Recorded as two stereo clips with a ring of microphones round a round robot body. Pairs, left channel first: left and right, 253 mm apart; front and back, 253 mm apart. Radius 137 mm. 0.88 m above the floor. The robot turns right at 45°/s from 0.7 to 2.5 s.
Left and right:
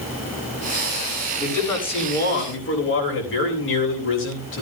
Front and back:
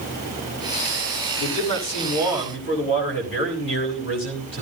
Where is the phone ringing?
I don't hear a phone ringing.